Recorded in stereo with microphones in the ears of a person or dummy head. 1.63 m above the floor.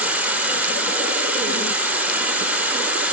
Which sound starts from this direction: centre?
An insect, at 0.0 s.